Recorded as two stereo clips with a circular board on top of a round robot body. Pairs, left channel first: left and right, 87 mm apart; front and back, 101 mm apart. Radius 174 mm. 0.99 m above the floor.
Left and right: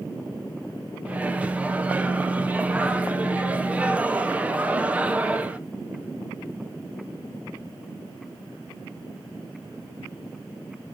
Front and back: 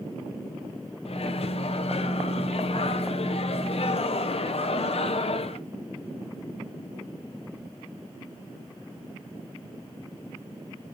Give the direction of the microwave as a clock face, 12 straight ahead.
1 o'clock.